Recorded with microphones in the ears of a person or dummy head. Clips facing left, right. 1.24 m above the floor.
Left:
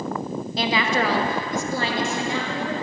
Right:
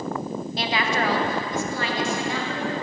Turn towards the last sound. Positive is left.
turn(degrees=20)  # may be behind; listen again after turning